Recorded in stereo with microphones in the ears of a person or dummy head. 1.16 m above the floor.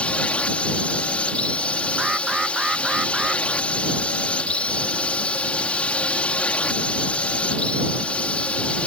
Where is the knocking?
No knocking in this recording.